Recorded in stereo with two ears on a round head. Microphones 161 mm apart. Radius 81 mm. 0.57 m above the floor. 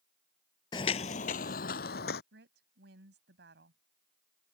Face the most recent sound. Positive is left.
turn(degrees=-70)  # may be behind; listen again after turning